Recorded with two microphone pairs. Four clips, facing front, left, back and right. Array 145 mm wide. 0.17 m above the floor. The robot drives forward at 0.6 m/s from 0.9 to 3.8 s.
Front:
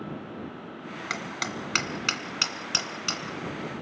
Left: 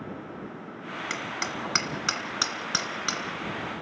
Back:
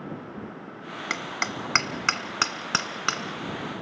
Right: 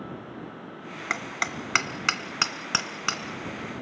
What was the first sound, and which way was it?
Hammering, 120° right.